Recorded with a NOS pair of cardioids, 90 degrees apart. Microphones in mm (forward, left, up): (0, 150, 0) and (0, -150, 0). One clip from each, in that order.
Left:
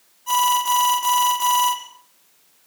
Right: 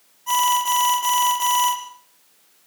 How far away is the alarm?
About 6.5 m.